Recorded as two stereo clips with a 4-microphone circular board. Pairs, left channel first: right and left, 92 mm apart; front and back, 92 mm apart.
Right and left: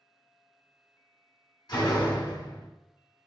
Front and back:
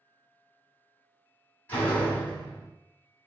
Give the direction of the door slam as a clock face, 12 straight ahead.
2 o'clock.